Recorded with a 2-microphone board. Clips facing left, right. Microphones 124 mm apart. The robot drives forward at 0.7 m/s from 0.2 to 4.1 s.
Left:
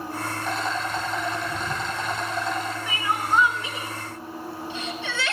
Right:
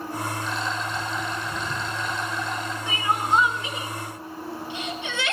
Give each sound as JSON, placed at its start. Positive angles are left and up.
{"t": 0.4, "sound": "a rattle", "side_deg": 50, "distance_m": 7.5}
{"t": 2.9, "sound": "crying", "side_deg": -25, "distance_m": 1.8}